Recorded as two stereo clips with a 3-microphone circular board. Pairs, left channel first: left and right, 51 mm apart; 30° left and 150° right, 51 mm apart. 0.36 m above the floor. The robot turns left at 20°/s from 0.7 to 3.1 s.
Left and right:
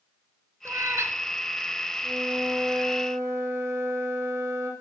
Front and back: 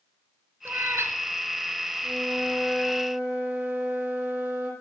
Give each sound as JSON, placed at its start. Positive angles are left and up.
{"t": 0.7, "sound": "a cat meowing", "azimuth_deg": -110, "distance_m": 1.4}
{"t": 2.0, "sound": "a flute", "azimuth_deg": -70, "distance_m": 8.0}